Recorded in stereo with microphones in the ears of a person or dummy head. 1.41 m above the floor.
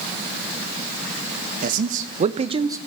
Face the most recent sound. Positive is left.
turn(degrees=-20)  # may be behind; listen again after turning